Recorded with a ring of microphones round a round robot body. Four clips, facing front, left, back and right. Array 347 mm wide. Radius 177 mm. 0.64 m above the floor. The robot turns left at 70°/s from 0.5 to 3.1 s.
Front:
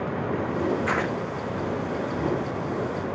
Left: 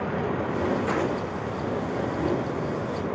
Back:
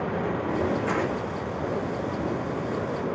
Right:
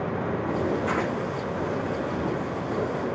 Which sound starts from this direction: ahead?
Tearing paper, at 0.9 s.